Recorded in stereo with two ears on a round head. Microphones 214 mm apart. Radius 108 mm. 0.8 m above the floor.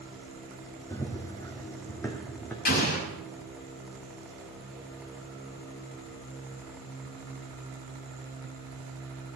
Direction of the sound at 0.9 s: 10° left (ahead or behind).